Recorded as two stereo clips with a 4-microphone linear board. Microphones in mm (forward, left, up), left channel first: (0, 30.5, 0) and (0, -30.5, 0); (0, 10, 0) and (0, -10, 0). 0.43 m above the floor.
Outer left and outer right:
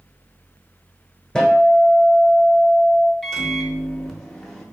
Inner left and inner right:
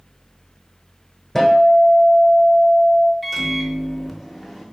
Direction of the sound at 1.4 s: 10° left (ahead or behind).